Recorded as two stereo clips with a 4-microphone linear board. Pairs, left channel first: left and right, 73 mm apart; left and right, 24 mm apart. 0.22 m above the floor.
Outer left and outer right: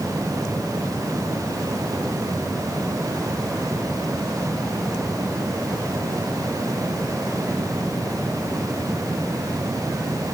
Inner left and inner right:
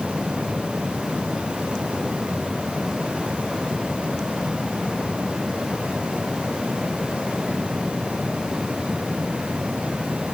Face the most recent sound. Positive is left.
No sound to turn to.